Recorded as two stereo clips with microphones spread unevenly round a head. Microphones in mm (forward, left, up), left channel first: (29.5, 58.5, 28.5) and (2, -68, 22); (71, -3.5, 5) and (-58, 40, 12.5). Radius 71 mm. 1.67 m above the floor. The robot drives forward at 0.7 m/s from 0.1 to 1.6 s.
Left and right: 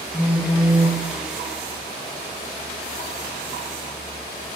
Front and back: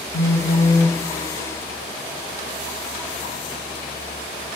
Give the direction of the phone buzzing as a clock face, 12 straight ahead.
1 o'clock.